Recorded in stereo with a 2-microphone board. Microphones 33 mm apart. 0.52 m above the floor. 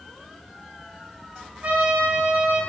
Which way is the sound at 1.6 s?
55° right (ahead or behind).